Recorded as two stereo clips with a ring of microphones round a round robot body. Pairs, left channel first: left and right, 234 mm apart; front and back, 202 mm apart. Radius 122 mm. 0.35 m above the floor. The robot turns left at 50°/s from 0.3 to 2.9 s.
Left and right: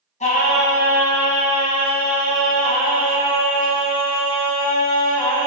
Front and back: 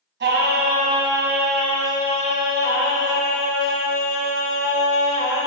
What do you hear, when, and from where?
0.2 s singing: 150° left, 2 m; by 5.5 s 20° left, 2 m